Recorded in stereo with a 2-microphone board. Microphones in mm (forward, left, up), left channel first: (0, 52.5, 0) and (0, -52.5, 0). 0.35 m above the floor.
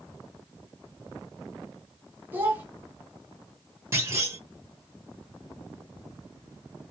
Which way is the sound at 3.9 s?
25° right (ahead or behind).